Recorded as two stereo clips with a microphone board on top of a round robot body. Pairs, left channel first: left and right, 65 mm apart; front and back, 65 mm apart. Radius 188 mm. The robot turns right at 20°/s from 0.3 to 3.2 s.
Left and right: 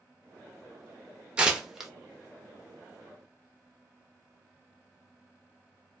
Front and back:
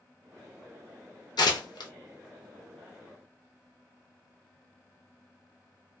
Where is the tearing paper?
15° right, 0.6 m; by 1.9 s 5° right, 0.6 m.